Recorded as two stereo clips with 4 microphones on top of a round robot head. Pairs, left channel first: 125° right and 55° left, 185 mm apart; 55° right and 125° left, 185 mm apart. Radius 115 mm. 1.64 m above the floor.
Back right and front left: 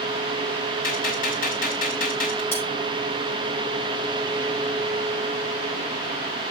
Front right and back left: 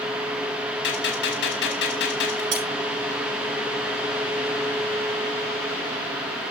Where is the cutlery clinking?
155° left, 7 m.